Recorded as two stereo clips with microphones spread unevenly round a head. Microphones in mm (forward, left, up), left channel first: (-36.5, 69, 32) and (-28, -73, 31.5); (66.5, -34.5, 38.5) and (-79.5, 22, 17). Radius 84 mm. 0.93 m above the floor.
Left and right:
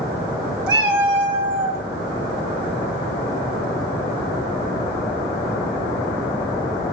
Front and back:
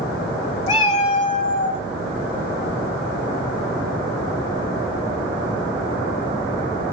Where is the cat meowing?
70° right, 2.5 m.